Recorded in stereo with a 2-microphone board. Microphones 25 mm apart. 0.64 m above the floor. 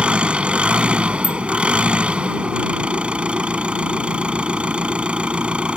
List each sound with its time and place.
0.0 s an engine running: 50° right (ahead or behind)
1.2 s a bicycle bell: 75° left (ahead or behind)